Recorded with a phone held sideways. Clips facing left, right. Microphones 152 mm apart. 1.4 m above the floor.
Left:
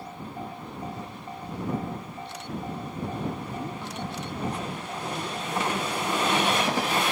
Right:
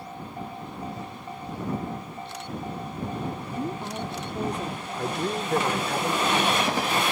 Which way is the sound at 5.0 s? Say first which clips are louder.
Right 7 dB; 85° right.